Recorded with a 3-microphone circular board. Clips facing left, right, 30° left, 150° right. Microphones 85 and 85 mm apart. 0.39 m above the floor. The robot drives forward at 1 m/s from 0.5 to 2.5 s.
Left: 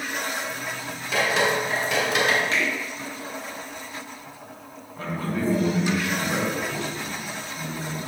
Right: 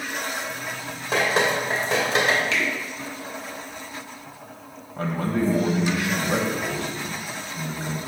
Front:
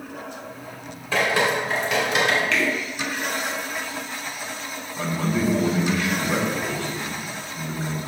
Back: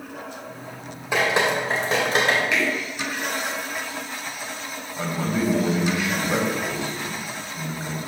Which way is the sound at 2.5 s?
135° left.